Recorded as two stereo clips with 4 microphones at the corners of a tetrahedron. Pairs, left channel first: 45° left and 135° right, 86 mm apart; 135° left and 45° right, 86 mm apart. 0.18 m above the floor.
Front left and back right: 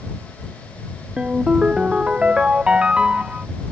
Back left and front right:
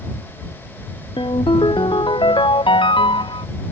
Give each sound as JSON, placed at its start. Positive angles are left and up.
{"t": 1.2, "sound": "a ringtone", "azimuth_deg": 145}